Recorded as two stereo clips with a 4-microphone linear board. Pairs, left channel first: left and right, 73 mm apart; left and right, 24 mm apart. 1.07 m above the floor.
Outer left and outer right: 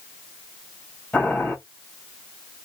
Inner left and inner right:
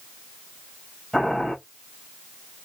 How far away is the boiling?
About 1.8 m.